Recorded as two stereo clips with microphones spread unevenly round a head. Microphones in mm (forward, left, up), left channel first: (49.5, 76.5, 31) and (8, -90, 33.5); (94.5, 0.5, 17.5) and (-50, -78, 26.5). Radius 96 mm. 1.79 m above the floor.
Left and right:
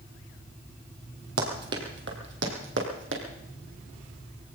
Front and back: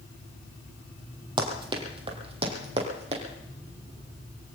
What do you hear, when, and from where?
1.4 s running footsteps: 100° right, 2.5 m; by 3.2 s 110° right, 3.5 m